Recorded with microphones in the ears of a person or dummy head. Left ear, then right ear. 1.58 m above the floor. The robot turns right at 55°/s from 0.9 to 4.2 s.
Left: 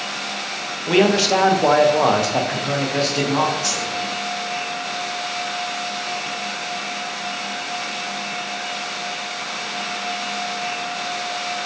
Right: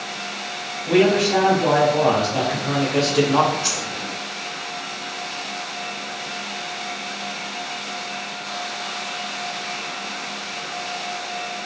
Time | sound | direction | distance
0.9 | a man speaking | 60° left | 0.5 m
3.6 | a dropped coin | 35° left (ahead or behind) | 1.7 m